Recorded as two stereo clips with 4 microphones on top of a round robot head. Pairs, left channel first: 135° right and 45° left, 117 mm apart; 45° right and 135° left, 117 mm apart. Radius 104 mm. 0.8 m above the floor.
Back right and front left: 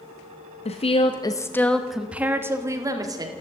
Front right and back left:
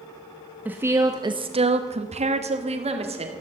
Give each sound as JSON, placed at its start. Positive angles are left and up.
{"t": 0.7, "sound": "a woman speaking", "azimuth_deg": -150, "distance_m": 1.2}